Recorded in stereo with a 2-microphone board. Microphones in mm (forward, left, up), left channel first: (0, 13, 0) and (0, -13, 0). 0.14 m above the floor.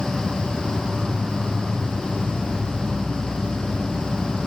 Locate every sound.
0.0 s an insect: 70° right (ahead or behind), 2 m